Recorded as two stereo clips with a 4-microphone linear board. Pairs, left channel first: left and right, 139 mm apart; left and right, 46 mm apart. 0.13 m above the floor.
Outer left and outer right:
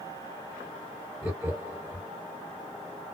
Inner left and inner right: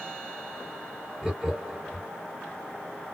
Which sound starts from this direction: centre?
Laughter, at 1.2 s.